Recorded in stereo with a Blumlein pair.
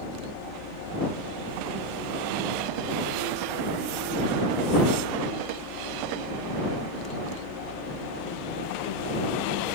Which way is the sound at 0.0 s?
45° left.